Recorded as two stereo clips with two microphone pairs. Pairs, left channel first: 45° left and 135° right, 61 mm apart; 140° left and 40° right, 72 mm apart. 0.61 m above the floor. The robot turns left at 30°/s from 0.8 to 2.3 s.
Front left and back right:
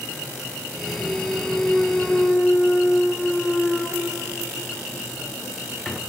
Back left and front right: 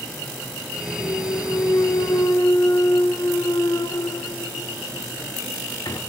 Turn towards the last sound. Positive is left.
turn(degrees=125)